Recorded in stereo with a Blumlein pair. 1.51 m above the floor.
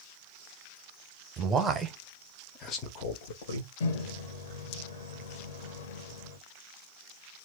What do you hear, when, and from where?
1.4 s a man speaking: 25° right, 1.0 m; by 3.7 s 55° left, 1.3 m
3.8 s a microwave: 55° left, 1.2 m